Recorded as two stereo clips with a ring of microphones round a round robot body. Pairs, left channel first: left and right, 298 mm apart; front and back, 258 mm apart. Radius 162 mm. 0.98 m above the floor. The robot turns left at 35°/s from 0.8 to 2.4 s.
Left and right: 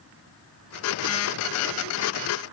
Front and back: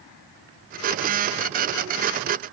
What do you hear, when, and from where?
Only background noise.